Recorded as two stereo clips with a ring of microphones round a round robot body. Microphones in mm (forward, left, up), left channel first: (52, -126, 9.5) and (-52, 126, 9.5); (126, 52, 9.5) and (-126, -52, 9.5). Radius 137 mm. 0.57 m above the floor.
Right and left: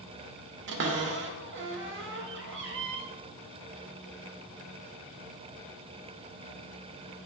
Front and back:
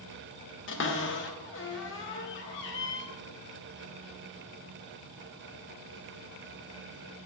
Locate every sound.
0.7 s a cupboard door: 65° left, 1.3 m